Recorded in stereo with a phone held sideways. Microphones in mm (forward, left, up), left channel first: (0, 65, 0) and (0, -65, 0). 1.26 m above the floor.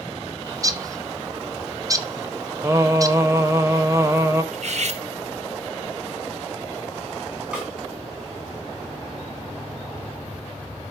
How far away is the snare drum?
About 4 m.